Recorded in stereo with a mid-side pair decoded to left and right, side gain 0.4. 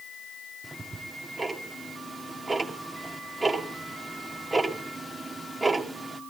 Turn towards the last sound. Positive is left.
turn(degrees=-20)